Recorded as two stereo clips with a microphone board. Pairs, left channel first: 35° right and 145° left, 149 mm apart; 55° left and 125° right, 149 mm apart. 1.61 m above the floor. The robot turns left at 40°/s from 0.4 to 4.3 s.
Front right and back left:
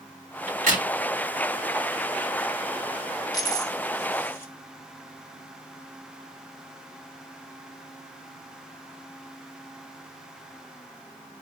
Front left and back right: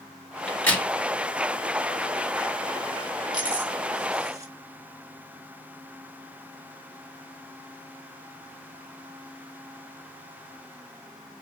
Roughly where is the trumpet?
No trumpet in this recording.